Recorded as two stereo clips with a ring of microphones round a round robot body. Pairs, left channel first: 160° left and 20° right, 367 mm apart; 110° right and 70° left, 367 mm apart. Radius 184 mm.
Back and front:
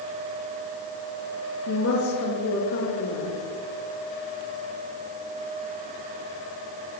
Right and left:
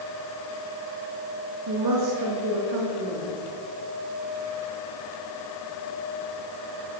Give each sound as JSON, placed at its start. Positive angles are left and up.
{"t": 1.7, "sound": "a woman speaking", "azimuth_deg": 105, "distance_m": 3.5}